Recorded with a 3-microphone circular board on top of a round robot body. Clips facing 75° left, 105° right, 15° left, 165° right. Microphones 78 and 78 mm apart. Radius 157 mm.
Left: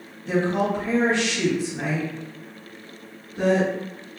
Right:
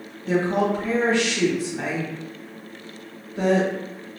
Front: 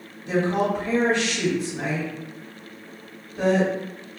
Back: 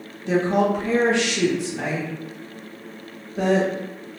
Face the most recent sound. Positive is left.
turn(degrees=-150)